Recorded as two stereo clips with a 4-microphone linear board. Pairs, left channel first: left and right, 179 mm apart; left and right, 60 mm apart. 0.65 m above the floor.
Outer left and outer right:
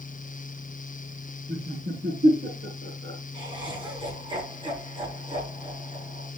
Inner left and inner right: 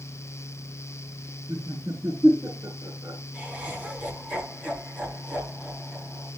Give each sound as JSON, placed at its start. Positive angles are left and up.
{"t": 1.5, "sound": "laughter", "side_deg": -75, "distance_m": 5.5}
{"t": 3.3, "sound": "laughter", "side_deg": -25, "distance_m": 6.5}